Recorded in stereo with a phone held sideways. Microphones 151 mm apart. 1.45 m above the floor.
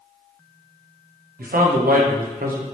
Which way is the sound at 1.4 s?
75° right (ahead or behind).